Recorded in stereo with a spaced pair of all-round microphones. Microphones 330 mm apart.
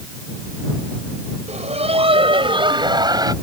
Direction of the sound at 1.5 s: 20° right (ahead or behind).